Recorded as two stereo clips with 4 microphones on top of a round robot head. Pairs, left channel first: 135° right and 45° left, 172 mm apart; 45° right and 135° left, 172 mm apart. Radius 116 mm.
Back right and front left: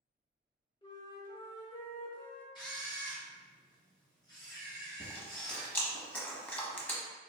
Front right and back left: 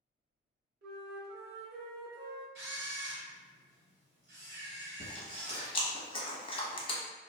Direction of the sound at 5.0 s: 65° right.